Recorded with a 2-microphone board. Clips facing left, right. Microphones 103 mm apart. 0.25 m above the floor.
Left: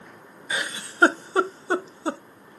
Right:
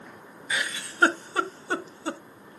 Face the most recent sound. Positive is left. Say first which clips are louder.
# left 1 dB
turn(degrees=30)  # may be behind; listen again after turning